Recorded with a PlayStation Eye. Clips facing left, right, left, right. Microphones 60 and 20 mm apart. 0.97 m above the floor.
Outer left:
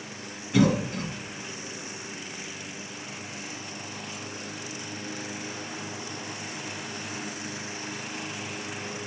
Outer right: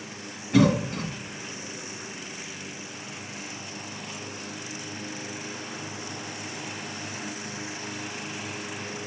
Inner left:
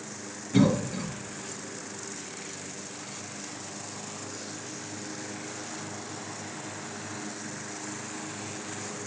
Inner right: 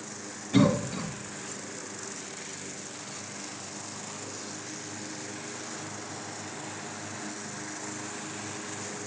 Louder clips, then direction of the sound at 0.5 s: Outer right 2 dB, even; 60° right (ahead or behind).